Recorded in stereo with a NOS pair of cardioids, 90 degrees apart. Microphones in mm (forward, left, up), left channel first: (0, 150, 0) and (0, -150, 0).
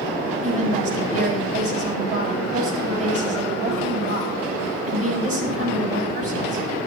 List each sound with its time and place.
0.4 s a woman speaking: 50° right, 5 m